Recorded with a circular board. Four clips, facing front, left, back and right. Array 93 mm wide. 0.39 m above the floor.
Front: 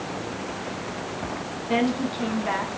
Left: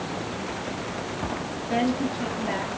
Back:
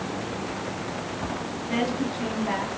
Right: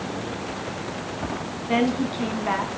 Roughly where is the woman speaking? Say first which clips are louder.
Right 2 dB, front 3 dB; ahead right.